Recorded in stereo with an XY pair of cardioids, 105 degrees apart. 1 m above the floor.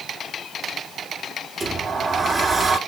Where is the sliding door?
35° right, 1.3 m.